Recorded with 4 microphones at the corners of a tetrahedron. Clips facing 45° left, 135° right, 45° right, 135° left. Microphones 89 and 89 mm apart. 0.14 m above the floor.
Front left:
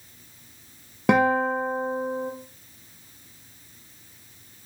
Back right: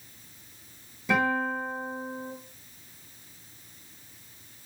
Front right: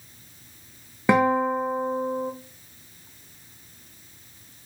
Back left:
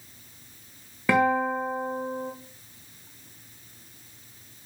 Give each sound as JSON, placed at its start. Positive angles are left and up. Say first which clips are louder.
{"t": 1.1, "sound": "a guitar", "louder": "front left 6 dB, front right 2 dB", "azimuth_deg": 25, "distance_m": 1.9}